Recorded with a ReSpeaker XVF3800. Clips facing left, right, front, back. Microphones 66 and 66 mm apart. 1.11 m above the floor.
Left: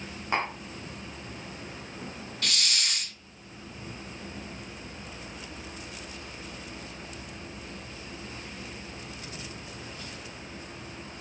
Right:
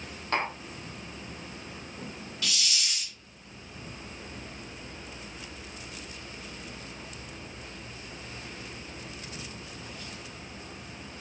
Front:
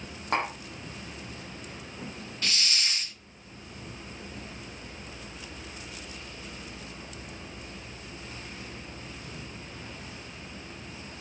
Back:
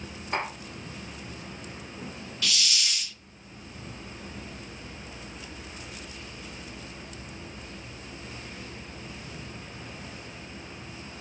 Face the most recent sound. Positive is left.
turn(degrees=50)